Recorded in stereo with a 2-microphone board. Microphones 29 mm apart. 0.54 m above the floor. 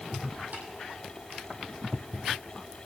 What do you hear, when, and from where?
0.5 s tapping: 70° right (ahead or behind), 5.5 m